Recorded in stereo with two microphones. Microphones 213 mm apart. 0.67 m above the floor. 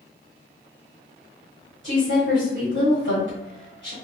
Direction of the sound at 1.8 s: 60° right (ahead or behind).